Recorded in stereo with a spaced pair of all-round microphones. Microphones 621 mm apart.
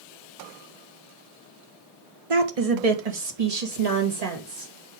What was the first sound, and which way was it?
A woman speaking, 55° right (ahead or behind).